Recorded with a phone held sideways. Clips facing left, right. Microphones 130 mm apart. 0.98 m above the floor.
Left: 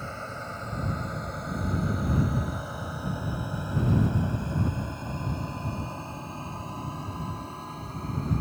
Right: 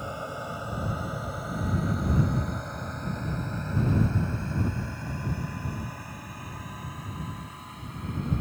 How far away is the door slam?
I don't hear a door slam.